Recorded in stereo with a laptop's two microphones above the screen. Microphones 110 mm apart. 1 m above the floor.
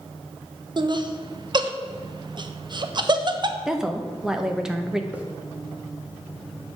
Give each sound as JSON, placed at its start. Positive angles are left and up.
{"t": 0.8, "sound": "laughter", "side_deg": -45, "distance_m": 0.6}
{"t": 3.6, "sound": "a woman speaking", "side_deg": -5, "distance_m": 0.5}
{"t": 5.1, "sound": "a hiss", "side_deg": -10, "distance_m": 0.6}